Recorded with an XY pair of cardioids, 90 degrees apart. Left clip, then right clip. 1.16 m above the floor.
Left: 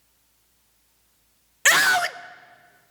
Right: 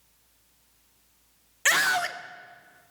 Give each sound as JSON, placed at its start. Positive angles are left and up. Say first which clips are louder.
{"t": 1.6, "sound": "a scream", "louder": "left 5 dB", "azimuth_deg": 40, "distance_m": 0.7}